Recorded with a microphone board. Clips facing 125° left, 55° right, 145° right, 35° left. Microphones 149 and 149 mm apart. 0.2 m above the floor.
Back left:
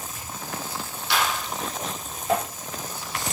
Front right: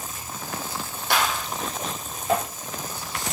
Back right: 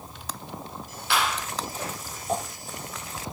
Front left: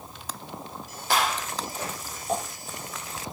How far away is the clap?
About 6.5 m.